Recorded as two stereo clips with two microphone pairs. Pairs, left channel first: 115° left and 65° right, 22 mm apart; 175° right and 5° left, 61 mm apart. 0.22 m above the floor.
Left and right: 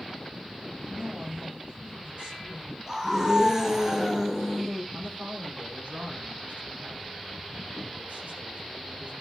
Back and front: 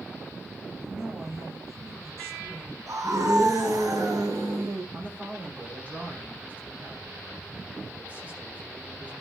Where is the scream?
Straight ahead, 3.5 m.